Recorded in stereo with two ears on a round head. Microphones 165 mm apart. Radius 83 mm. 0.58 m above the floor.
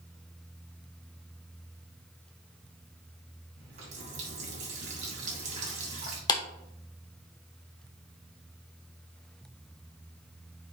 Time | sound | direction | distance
3.6 | a running tap | 40° right (ahead or behind) | 2.5 m
6.3 | a clap | 20° left (ahead or behind) | 0.9 m